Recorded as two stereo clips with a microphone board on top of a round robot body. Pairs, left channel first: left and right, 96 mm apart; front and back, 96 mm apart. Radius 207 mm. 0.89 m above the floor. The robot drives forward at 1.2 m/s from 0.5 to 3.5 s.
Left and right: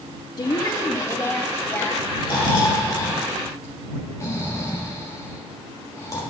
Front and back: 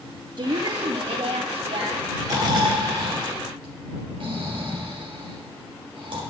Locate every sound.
0.4 s a woman speaking: 140° left, 1.7 m; by 2.1 s 160° left, 3.5 m
2.2 s snoring: 130° left, 3 m; by 6.2 s 145° left, 4 m